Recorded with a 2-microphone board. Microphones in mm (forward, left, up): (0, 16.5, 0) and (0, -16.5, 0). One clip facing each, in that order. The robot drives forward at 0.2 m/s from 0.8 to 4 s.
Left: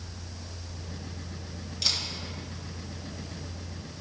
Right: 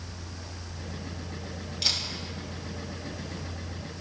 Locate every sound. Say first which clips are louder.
1.8 s a camera shutter: right 1 dB; 10° right (ahead or behind), 1.8 m